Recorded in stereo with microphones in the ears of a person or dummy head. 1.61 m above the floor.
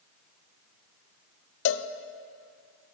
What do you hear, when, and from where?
1.6 s a cowbell: 75° left (ahead or behind), 0.6 m